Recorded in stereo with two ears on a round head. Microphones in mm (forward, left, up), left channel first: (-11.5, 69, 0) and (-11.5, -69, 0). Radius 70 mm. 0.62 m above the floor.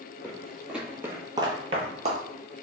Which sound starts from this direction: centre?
Footsteps, at 0.2 s.